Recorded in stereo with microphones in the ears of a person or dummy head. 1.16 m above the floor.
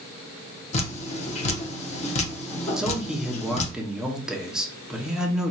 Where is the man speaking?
Centre (ahead or behind), 0.8 m.